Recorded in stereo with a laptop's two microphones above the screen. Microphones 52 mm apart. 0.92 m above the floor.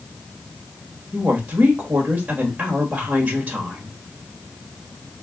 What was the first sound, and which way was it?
A woman speaking, 30° right (ahead or behind).